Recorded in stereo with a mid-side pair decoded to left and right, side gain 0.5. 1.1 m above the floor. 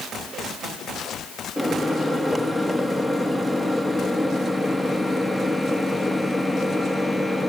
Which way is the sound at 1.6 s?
5° right.